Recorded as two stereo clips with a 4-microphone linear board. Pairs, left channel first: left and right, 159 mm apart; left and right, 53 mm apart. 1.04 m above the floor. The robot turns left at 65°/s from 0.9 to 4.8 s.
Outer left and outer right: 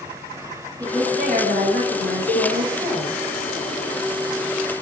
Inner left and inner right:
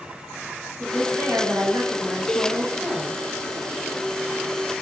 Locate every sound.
0.8 s a woman speaking: 25° right, 6 m; by 3.2 s 175° right, 6 m
2.3 s a cowbell: 75° right (ahead or behind), 4.5 m; by 2.5 s 60° right (ahead or behind), 4.5 m